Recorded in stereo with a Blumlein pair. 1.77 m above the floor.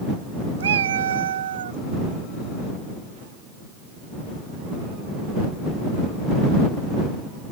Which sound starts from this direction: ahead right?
A cat meowing, at 0.6 s.